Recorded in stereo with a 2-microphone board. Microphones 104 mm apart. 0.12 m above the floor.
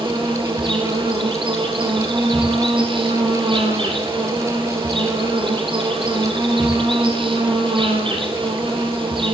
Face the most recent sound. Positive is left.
turn(degrees=-55)  # may be behind; listen again after turning